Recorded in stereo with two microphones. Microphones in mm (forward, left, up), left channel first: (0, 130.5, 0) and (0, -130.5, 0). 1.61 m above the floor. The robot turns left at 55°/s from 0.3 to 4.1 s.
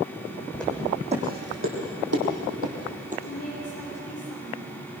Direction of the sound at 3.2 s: 115° left.